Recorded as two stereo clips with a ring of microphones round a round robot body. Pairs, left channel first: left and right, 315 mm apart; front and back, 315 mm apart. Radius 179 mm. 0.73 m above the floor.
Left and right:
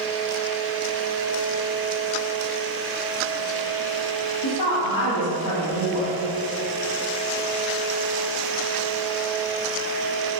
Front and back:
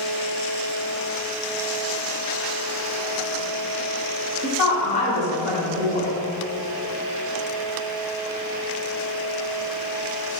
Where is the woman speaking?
60° left, 1.7 m.